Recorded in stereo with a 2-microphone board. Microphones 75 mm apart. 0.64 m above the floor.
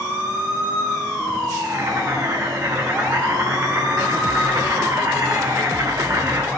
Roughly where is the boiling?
Right.